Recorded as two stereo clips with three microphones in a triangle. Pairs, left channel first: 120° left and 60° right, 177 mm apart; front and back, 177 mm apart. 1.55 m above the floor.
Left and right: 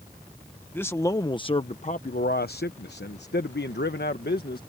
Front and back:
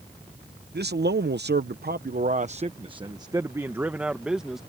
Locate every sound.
0.7 s a man speaking: 160° right; by 4.6 s 90° left